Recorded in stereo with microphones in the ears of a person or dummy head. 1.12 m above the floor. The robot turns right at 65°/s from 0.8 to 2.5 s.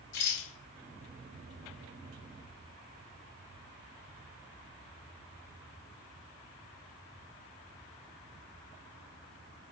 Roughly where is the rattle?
Left.